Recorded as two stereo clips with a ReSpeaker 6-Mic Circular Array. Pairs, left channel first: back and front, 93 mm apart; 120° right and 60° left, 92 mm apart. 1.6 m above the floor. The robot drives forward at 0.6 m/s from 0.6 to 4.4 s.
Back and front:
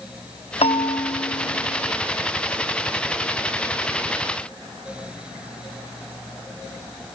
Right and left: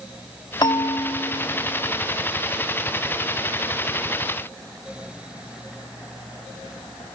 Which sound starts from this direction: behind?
A bell, at 0.6 s.